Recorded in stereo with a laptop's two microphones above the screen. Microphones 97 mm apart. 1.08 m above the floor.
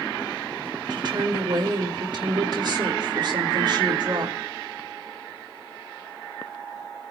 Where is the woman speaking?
55° right (ahead or behind), 2.5 m.